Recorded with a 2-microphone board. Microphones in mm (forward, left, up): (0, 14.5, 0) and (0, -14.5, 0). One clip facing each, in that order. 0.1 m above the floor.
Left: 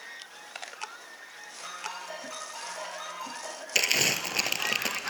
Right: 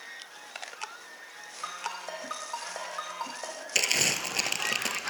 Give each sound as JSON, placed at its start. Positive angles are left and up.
{"t": 1.6, "sound": "a ringtone", "side_deg": -50, "distance_m": 3.0}
{"t": 3.8, "sound": "crumpling", "side_deg": 5, "distance_m": 0.6}